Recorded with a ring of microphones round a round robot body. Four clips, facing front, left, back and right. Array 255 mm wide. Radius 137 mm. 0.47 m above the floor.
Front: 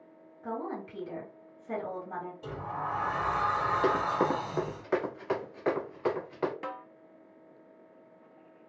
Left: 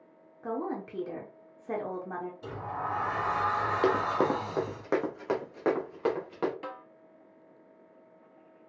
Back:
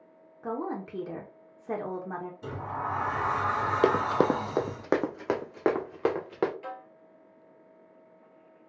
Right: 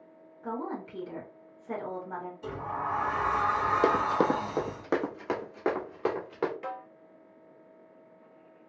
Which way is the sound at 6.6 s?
20° left.